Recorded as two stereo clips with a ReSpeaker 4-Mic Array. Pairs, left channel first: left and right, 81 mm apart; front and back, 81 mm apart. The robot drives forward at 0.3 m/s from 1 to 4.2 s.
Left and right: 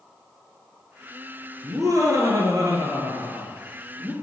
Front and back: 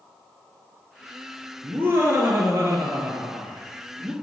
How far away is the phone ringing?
No phone ringing in this recording.